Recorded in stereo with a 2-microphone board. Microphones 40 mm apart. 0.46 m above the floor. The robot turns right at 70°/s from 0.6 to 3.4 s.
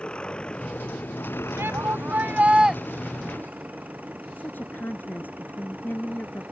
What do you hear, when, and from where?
0.0 s an engine running: 20° left; by 6.5 s 145° right
1.6 s a shout: 100° right; by 2.8 s 15° right
4.3 s a woman speaking: 50° left (ahead or behind)